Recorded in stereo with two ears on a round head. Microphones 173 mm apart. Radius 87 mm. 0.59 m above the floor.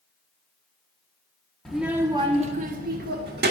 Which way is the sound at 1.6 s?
Centre (ahead or behind).